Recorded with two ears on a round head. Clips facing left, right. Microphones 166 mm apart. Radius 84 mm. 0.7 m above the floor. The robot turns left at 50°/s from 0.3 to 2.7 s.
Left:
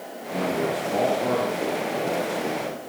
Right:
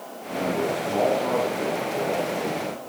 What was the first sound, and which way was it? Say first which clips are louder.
A man speaking: even; 165° right.